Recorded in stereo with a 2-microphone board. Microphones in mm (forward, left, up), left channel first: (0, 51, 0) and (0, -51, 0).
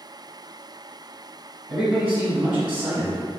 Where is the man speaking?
10° right (ahead or behind), 1.0 m.